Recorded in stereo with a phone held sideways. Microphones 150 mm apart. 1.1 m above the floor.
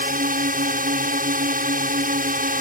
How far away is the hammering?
No hammering in this recording.